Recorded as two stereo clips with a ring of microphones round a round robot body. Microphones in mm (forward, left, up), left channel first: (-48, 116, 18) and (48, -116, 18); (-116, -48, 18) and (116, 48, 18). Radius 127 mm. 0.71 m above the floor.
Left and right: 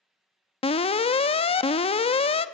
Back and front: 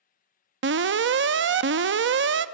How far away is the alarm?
About 0.7 m.